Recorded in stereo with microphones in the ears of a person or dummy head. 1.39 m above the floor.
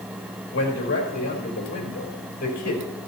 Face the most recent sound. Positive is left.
turn(degrees=55)  # may be behind; listen again after turning